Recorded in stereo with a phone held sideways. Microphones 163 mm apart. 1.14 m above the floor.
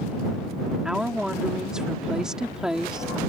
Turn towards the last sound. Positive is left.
turn(degrees=-5)  # may be behind; listen again after turning